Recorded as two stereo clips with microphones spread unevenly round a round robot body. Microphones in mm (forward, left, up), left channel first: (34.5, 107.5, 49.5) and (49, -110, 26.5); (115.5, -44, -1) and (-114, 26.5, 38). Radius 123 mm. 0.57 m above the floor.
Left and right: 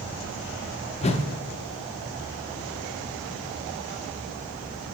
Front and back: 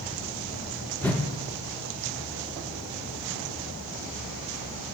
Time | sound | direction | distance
1.0 | a whoosh | 45° left | 0.7 m